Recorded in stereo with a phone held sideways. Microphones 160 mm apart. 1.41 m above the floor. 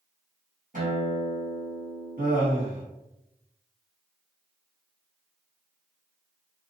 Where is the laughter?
70° right (ahead or behind), 1.5 m.